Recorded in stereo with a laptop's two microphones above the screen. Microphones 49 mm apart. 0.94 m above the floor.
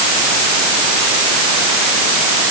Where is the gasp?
I don't hear a gasp.